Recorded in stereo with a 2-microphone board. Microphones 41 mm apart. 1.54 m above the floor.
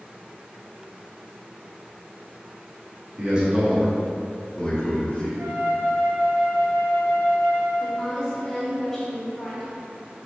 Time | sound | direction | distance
3.2 | a man speaking | 35° right (ahead or behind) | 0.7 m
5.4 | a flute | 80° right | 1.1 m
7.8 | a woman speaking | 5° left (ahead or behind) | 1.0 m